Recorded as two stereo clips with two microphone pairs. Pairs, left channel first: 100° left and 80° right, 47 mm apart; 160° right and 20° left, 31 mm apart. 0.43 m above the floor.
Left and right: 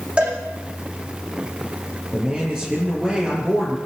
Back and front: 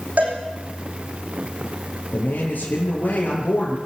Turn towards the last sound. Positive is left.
turn(degrees=-155)